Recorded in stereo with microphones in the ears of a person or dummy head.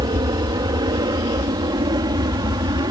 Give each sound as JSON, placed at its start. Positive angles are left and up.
{"t": 0.0, "sound": "an aircraft", "side_deg": -20}